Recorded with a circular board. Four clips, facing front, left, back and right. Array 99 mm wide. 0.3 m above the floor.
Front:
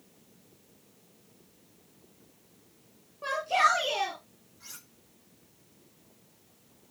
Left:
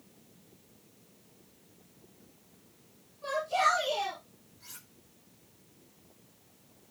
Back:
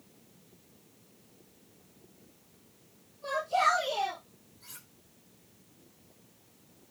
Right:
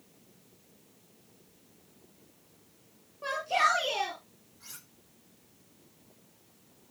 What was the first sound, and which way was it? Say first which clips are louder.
A shout: even, front 2 dB; 35° right.